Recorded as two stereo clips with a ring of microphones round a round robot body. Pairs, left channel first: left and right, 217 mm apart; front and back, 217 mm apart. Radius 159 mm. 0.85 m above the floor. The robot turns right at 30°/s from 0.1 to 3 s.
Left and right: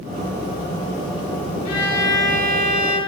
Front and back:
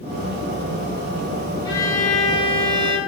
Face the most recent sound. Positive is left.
turn(degrees=115)